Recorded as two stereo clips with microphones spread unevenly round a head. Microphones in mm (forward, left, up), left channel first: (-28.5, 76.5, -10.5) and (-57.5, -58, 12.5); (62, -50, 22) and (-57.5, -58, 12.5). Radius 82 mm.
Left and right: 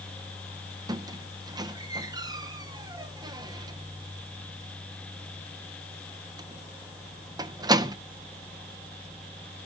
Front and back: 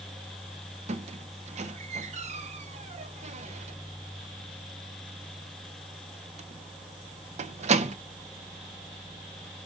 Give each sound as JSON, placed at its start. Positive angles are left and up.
{"t": 0.9, "sound": "a squeak", "azimuth_deg": -155, "distance_m": 0.8}